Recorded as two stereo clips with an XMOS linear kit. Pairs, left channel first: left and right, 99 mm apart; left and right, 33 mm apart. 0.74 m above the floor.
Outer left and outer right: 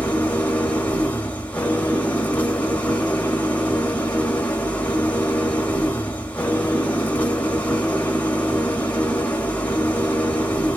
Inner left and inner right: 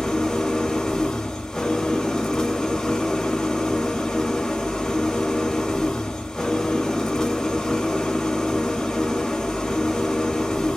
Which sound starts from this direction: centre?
An engine running, at 0.0 s.